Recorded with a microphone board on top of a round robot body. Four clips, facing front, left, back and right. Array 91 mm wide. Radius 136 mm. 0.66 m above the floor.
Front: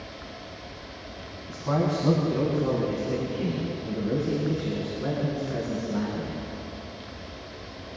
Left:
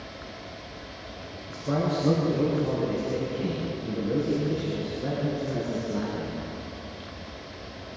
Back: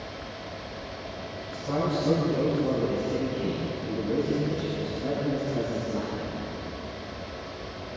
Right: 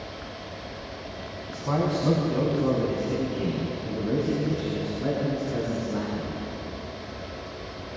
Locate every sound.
1.5 s a man speaking: 50° right, 5 m; by 6.4 s 55° right, 8.5 m